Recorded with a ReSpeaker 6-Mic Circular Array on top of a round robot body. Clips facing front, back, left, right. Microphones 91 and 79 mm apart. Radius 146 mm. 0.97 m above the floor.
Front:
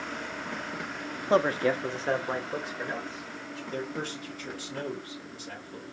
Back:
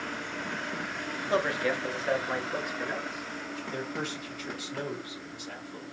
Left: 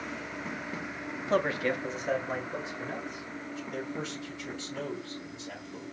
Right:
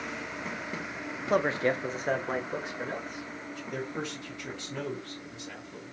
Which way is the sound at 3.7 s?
55° right.